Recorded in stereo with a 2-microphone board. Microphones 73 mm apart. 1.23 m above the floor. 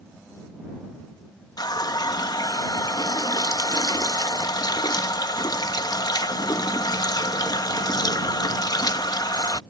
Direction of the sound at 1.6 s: 65° left (ahead or behind).